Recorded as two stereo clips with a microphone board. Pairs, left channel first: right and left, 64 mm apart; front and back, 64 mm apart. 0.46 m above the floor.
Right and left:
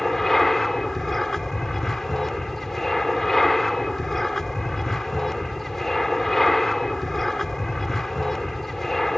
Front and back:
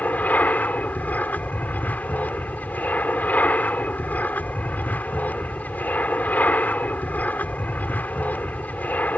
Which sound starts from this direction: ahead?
An aircraft, at 0.0 s.